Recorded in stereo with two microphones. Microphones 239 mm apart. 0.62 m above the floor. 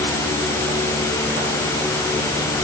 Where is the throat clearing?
No throat clearing in this recording.